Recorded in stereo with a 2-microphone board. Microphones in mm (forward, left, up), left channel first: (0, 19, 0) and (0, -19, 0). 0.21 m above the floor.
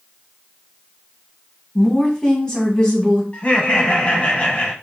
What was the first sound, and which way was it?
A woman speaking, 20° left (ahead or behind).